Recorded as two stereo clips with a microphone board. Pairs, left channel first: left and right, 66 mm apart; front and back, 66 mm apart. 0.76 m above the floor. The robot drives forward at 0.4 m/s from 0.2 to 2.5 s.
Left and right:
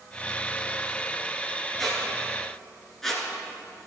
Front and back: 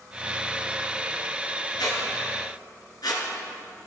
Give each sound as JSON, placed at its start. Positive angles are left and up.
{"t": 1.8, "sound": "a squeak", "azimuth_deg": 5, "distance_m": 3.0}